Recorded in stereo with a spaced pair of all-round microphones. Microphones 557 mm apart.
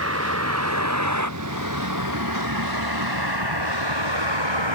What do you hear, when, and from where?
0.0 s a vehicle: 25° right (ahead or behind); by 4.8 s 55° right (ahead or behind)